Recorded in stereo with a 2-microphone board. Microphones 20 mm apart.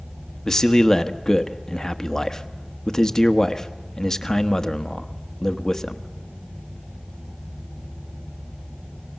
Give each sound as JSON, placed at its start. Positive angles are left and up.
{"t": 0.5, "sound": "a man speaking", "side_deg": 20, "distance_m": 1.1}